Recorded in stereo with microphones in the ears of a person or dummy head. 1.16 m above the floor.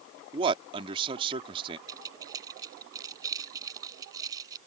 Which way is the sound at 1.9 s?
20° right (ahead or behind).